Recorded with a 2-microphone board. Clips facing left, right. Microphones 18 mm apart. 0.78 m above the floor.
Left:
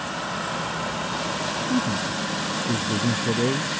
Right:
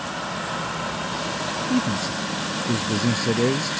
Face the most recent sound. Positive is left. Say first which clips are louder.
# right 2 dB
turn(degrees=-80)